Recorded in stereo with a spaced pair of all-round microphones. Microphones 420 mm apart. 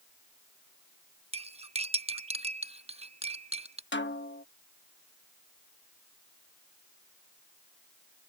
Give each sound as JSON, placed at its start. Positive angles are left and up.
{"t": 1.3, "sound": "cutlery clinking", "side_deg": -15}
{"t": 3.9, "sound": "a snare drum", "side_deg": 25}